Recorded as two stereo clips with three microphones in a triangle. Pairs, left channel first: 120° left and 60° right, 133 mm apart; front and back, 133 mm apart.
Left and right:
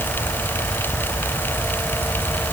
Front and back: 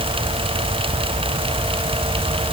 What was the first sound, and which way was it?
Only background noise.